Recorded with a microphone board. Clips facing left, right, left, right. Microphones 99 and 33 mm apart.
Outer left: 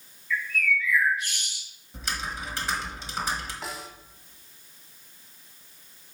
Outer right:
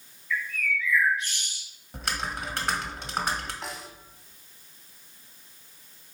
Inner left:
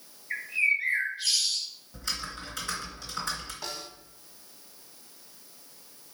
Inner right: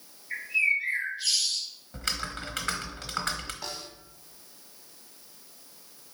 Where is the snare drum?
Centre (ahead or behind), 1.1 m.